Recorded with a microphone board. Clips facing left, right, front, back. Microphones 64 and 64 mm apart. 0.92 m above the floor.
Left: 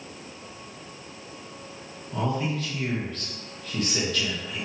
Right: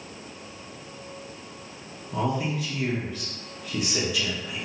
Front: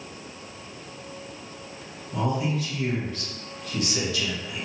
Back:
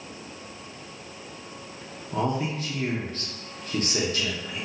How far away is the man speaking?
About 0.8 m.